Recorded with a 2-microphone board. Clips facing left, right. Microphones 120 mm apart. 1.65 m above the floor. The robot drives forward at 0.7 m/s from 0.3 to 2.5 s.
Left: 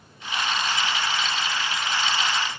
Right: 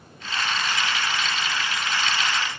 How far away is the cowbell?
No cowbell in this recording.